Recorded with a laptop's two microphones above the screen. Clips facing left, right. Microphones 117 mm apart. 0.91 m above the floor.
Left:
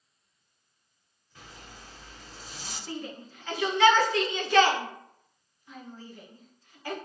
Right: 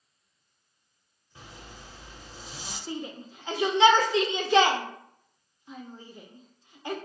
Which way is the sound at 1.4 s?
20° right (ahead or behind).